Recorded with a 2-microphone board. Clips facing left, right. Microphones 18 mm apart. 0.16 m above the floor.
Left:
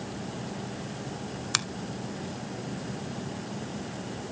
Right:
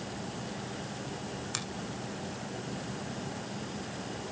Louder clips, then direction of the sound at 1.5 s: Left 11 dB; 45° left (ahead or behind).